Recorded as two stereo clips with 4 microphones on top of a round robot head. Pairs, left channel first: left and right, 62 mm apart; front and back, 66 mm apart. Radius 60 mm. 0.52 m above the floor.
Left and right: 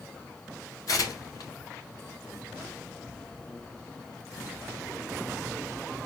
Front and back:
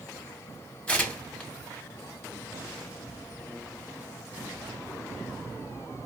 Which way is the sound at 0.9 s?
70° left.